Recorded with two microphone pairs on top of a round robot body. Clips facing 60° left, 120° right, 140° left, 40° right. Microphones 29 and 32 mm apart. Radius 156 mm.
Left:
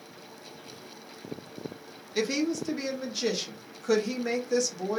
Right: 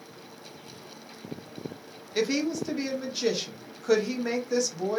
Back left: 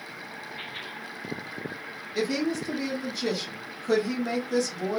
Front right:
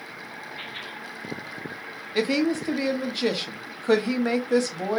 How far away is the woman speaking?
About 0.8 m.